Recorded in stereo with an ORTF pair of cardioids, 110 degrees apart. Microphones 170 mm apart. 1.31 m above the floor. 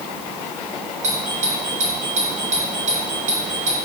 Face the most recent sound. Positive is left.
turn(degrees=-45)